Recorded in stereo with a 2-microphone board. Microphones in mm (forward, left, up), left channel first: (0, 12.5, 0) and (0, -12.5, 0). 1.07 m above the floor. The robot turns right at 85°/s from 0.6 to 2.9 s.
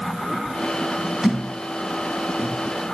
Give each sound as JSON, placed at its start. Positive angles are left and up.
{"t": 1.2, "sound": "a thud", "side_deg": -5, "distance_m": 5.0}